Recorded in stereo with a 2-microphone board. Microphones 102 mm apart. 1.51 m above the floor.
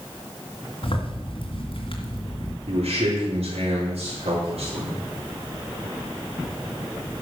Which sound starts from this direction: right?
A man speaking, at 2.7 s.